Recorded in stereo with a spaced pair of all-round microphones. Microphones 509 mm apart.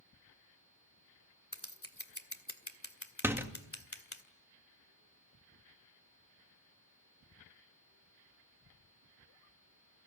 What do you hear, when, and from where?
1.5 s scissors: 30° left (ahead or behind), 2.0 m
3.2 s a door slam: 5° right (ahead or behind), 1.7 m